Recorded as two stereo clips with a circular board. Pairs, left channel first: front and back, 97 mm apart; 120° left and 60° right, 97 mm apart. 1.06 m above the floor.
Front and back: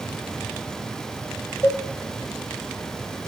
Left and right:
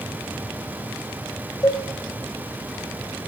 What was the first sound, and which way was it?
A cowbell, 65° left.